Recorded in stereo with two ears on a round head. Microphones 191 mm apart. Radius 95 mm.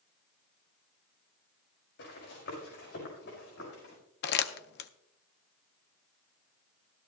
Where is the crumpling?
50° left (ahead or behind), 0.6 m.